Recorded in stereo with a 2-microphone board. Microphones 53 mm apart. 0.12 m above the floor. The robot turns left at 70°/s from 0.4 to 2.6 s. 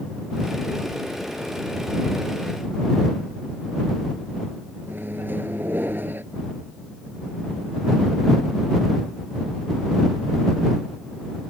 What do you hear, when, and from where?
4.9 s a microwave: 40° right (ahead or behind)